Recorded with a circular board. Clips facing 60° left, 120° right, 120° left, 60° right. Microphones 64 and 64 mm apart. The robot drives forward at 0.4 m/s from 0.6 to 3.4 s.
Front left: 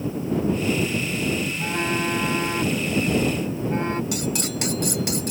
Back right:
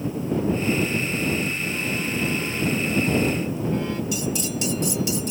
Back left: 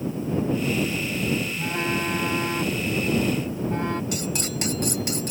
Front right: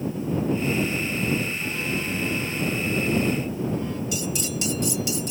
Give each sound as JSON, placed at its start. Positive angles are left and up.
{"t": 1.6, "sound": "a phone buzzing", "azimuth_deg": 80}
{"t": 4.1, "sound": "cutlery clinking", "azimuth_deg": 85}